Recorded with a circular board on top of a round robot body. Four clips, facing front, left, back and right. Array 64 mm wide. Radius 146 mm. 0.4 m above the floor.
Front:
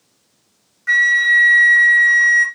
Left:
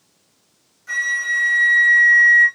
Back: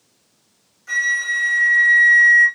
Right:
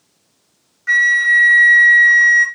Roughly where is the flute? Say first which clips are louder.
Right 9 dB, front 7 dB; ahead right.